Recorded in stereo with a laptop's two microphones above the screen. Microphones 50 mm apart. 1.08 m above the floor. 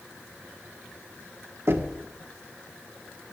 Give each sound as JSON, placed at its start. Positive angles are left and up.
{"t": 1.7, "sound": "knocking", "side_deg": -55, "distance_m": 1.3}